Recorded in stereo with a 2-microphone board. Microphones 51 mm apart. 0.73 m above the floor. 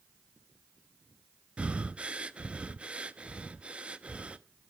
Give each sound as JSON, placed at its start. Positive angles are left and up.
{"t": 1.6, "sound": "breathing", "side_deg": -25, "distance_m": 0.5}